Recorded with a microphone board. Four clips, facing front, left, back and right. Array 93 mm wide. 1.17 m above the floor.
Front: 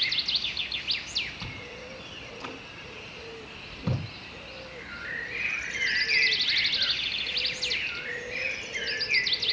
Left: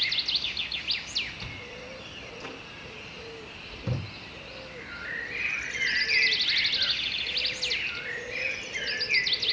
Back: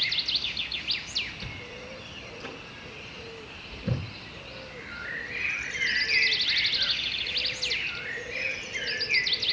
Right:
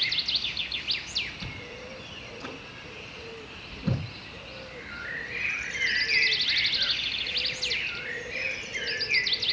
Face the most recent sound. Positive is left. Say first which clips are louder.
# right 1 dB, even
turn(degrees=15)